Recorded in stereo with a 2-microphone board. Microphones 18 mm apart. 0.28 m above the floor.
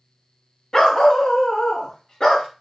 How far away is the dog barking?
About 0.8 m.